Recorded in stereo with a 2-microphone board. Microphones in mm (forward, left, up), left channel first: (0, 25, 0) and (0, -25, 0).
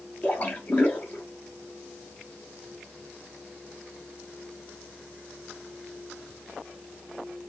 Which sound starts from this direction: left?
A splash, at 0.2 s.